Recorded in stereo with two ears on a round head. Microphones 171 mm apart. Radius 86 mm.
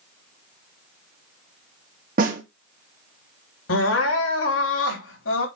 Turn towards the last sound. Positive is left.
turn(degrees=75)  # may be behind; listen again after turning